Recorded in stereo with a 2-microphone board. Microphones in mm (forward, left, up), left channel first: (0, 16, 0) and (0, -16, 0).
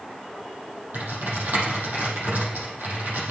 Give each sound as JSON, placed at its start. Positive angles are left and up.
{"t": 0.9, "sound": "typing on a keyboard", "side_deg": -85, "distance_m": 5.5}